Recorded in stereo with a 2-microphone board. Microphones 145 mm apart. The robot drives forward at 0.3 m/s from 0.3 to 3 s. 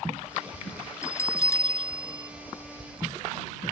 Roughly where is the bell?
Left.